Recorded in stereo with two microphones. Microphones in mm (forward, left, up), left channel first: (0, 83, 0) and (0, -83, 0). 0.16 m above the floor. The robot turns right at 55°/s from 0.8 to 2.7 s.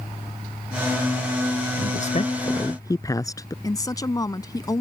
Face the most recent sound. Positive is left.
turn(degrees=25)  # may be behind; listen again after turning